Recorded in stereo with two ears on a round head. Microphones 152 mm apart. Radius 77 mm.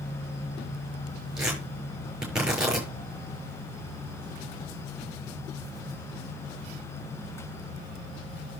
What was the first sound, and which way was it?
Tearing paper, 5° right (ahead or behind).